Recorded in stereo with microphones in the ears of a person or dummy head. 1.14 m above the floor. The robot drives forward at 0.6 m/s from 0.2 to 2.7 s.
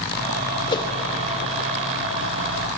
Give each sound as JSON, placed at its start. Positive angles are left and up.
{"t": 0.7, "sound": "a whoosh", "side_deg": 25, "distance_m": 1.6}